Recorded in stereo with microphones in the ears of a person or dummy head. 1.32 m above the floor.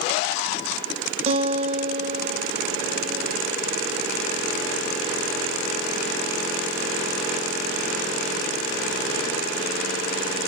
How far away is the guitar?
About 0.6 m.